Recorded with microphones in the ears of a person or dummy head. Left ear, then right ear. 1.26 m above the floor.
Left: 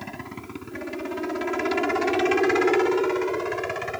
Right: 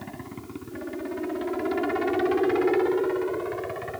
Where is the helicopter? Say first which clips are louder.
Left 3 dB; 65° left (ahead or behind); by 4.0 s 70° left (ahead or behind).